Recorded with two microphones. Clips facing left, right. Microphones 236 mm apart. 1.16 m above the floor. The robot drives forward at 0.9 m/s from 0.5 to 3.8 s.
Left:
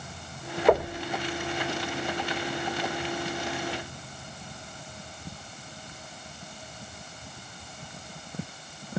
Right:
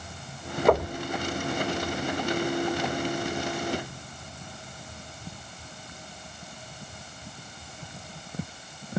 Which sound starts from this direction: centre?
Knocking, at 0.7 s.